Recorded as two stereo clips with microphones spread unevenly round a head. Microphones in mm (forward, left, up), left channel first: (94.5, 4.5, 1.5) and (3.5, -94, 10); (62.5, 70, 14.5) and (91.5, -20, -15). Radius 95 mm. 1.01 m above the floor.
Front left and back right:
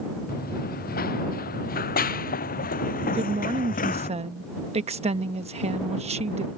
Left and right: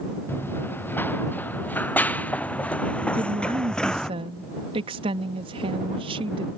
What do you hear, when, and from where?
0.3 s running footsteps: 45° left; by 4.1 s 30° left
3.1 s a woman speaking: 90° right